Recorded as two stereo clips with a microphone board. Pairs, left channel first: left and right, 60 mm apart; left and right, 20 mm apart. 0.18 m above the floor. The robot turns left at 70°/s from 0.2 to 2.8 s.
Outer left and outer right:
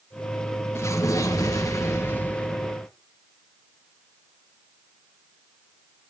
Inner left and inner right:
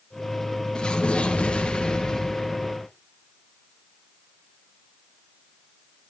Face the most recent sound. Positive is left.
turn(degrees=-10)